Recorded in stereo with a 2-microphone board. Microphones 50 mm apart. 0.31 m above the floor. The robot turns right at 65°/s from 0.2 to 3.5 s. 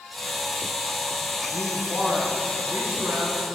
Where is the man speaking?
165° left, 3 m; by 3.5 s 70° right, 3 m.